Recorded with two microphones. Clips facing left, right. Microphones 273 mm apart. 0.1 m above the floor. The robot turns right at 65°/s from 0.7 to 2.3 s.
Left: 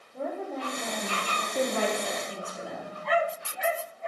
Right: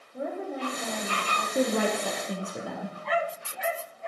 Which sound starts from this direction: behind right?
A woman speaking, at 1.6 s.